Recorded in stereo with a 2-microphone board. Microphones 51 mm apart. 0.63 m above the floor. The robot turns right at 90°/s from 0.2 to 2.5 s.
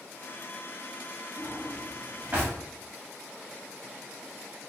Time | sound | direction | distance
1.4 | a drawer | 45° left (ahead or behind) | 1.0 m